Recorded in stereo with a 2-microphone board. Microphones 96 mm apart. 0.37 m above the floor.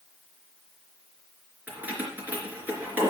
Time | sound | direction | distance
1.7 | keys jangling | 20° right (ahead or behind) | 3 m